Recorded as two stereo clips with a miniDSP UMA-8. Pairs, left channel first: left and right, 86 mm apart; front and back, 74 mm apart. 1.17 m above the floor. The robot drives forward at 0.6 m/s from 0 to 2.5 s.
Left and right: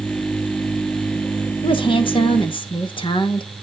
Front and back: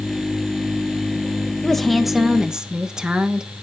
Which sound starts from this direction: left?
A woman speaking, at 1.6 s.